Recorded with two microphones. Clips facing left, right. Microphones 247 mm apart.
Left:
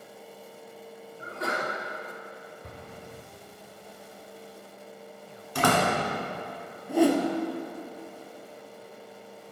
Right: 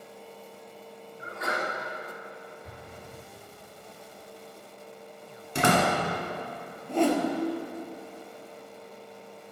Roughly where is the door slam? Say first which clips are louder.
Right 1 dB; right.